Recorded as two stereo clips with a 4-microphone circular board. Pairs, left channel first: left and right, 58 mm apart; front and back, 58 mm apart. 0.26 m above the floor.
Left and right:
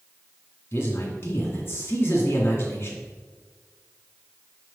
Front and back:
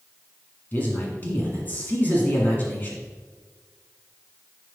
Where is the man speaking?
55° left, 2 m.